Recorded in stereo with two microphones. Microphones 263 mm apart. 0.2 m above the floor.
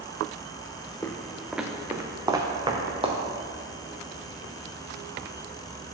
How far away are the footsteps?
About 0.8 m.